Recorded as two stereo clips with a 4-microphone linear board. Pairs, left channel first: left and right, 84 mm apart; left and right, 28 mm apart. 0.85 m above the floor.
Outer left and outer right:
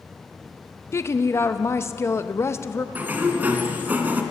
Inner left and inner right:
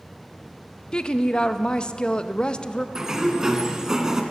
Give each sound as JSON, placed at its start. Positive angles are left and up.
{"t": 0.9, "sound": "a woman speaking", "side_deg": 35, "distance_m": 0.7}
{"t": 3.0, "sound": "a sliding door", "side_deg": -20, "distance_m": 1.3}